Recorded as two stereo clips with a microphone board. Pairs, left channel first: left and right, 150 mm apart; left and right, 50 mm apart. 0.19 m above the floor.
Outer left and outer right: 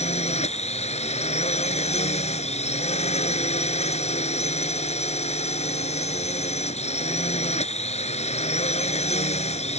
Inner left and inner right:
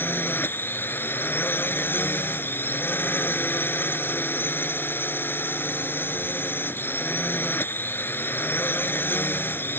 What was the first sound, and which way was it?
A drone, 45° left (ahead or behind).